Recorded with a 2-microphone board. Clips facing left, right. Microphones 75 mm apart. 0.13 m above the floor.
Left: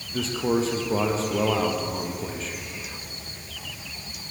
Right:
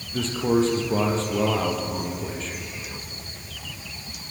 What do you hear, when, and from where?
0.1 s a man speaking: centre (ahead or behind), 4.5 m